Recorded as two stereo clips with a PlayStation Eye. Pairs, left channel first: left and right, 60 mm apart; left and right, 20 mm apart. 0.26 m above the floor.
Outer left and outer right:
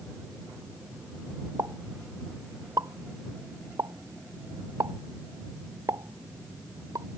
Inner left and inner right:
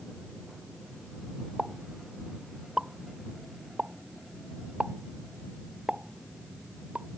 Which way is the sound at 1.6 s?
75° right (ahead or behind).